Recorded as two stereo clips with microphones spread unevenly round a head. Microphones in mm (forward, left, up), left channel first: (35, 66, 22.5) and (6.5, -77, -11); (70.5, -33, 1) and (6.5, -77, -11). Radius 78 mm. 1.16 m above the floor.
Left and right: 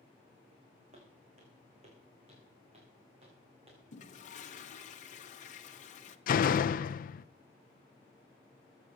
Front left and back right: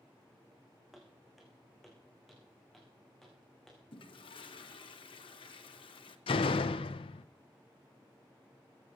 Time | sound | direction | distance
0.9 | footsteps | 55° right | 5.5 m
3.9 | a toilet flushing | 35° left | 1.3 m
6.3 | a door slam | 45° left | 0.5 m